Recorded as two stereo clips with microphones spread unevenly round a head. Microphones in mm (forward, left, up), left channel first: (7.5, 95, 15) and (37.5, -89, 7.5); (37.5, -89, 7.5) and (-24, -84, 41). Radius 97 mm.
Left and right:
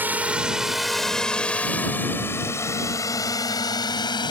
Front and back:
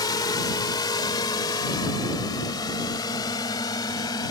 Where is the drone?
Straight ahead; by 4.3 s 30° left.